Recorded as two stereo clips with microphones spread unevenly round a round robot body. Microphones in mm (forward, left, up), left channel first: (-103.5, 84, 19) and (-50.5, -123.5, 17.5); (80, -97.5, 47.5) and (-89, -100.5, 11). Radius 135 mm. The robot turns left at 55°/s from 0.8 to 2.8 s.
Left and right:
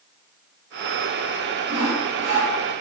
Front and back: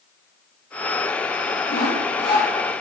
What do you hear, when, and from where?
1.7 s sawing: 30° right, 3 m; by 2.5 s 75° right, 3 m